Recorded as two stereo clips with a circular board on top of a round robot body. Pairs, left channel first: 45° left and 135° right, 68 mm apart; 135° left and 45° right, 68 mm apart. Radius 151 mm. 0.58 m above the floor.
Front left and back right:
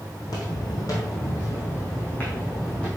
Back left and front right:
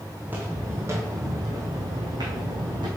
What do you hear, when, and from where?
0.2 s footsteps: 25° left, 1.9 m; by 2.9 s 35° right, 2 m